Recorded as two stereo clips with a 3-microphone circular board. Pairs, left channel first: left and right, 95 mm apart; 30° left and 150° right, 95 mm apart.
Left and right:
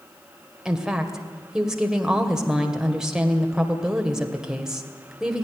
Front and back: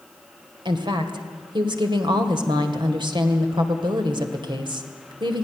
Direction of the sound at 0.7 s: 175° right.